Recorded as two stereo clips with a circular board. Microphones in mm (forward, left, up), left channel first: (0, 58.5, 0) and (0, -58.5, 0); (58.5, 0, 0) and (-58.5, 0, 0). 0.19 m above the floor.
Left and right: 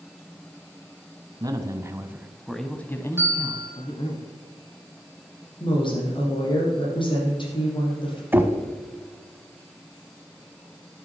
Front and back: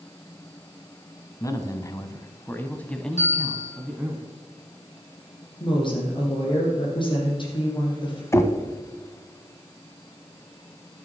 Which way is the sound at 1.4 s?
50° right.